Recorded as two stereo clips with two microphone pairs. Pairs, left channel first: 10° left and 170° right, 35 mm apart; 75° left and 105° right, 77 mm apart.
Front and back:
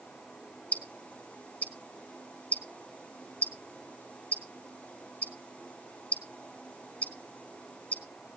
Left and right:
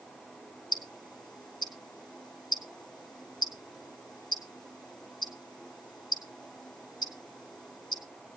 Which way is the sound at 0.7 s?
60° left.